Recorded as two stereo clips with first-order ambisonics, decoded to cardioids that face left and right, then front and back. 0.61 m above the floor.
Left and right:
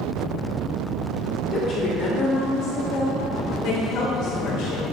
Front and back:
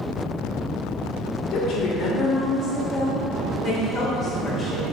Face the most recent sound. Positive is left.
turn(degrees=75)